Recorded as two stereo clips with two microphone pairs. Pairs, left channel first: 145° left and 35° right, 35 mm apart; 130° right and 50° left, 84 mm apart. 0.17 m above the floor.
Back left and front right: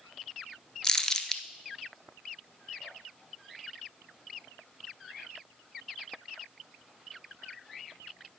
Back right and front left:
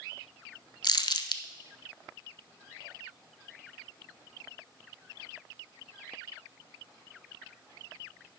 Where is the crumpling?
150° right, 0.6 m.